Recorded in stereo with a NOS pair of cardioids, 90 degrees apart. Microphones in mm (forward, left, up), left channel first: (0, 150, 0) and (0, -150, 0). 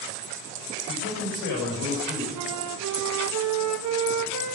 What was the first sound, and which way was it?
A man speaking, 65° left.